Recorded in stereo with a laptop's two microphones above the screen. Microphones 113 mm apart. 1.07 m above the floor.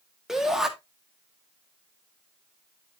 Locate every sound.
0.3 s a shout: 5° right (ahead or behind), 1.8 m